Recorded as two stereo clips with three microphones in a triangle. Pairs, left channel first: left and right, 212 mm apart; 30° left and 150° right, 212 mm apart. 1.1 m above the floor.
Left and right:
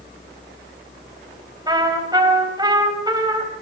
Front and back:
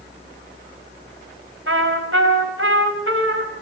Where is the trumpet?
160° right, 3.5 m.